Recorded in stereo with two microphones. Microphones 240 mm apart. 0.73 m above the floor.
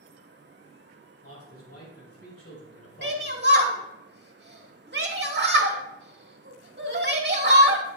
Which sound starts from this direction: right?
A shout, at 3.0 s.